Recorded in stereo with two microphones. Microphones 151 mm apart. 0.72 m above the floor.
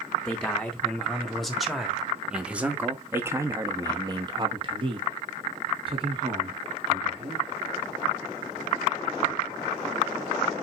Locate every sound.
0.2 s a man speaking: 5° left (ahead or behind), 2 m; by 7.4 s 30° right (ahead or behind), 2.0 m